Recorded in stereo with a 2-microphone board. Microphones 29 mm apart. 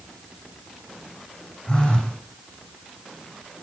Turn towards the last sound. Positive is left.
turn(degrees=35)  # may be behind; listen again after turning